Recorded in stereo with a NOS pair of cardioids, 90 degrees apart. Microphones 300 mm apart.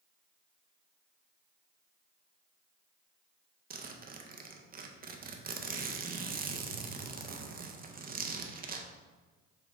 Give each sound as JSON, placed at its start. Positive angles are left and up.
{"t": 3.7, "sound": "a zipper", "azimuth_deg": -30, "distance_m": 0.5}